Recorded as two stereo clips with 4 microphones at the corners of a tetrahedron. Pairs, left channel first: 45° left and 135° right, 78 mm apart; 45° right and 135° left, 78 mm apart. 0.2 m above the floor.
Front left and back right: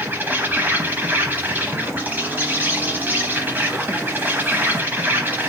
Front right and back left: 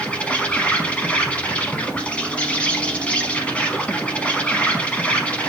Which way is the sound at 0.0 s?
100° right.